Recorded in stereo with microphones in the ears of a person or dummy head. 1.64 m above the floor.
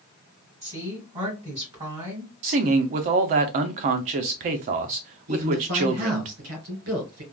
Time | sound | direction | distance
0.6 | a woman speaking | 30° right (ahead or behind) | 2.5 m
2.4 | a man speaking | 40° right (ahead or behind) | 0.6 m
5.3 | a man speaking | 75° right (ahead or behind) | 2 m